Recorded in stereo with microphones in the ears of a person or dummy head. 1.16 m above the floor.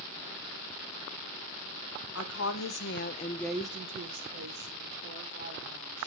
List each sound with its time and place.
2.1 s a woman speaking: 75° left (ahead or behind), 1.7 m; by 6.1 s 65° right (ahead or behind), 3.5 m